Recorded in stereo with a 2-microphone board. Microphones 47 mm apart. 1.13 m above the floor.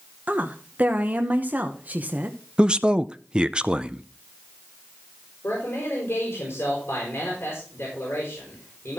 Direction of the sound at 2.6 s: 20° right (ahead or behind).